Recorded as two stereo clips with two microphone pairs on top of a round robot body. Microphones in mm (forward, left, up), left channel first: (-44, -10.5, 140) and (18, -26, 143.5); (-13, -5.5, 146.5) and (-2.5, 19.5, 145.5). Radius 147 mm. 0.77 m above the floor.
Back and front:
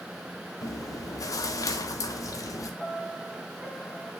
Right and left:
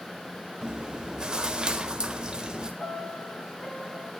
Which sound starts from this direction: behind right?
A piano, at 2.8 s.